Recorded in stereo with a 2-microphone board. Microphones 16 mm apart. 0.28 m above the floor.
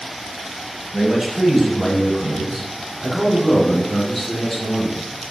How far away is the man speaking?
About 1.3 m.